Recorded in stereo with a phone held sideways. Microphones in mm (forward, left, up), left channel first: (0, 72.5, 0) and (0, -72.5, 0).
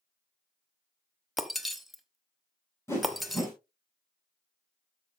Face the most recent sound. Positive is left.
turn(degrees=15)  # may be behind; listen again after turning